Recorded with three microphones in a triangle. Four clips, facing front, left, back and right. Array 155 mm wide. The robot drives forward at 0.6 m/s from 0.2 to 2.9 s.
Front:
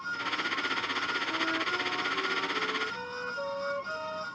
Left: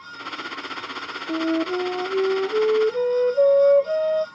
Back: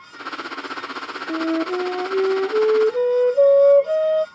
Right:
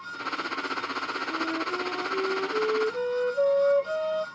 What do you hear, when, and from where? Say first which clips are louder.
1.3 s a flute: left 9 dB, back 14 dB; 135° left; by 4.2 s 160° left